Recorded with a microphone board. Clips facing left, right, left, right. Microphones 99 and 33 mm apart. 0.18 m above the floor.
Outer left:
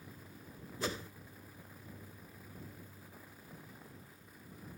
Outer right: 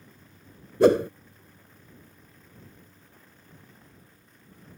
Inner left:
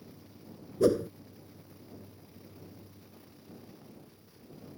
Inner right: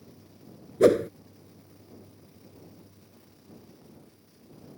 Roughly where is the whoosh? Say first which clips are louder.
Outer right 22 dB, inner right 6 dB; right.